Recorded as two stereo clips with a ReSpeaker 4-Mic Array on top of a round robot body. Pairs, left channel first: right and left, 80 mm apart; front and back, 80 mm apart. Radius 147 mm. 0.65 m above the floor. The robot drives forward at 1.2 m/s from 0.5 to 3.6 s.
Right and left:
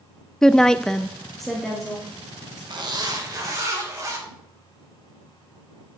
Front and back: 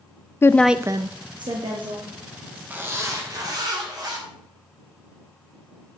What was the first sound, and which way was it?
A woman speaking, 15° right.